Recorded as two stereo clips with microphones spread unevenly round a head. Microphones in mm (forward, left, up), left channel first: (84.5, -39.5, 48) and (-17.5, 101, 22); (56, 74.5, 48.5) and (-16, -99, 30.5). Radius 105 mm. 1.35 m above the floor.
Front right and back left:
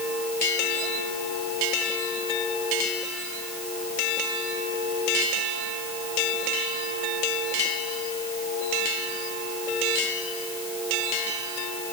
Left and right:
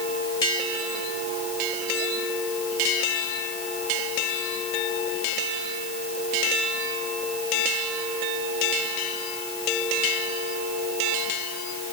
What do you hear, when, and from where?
Only background noise.